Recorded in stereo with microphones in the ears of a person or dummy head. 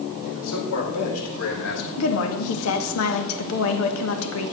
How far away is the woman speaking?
About 2.0 m.